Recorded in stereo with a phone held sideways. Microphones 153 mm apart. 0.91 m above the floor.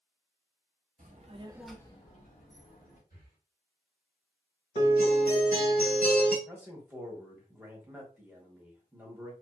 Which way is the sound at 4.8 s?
70° left (ahead or behind).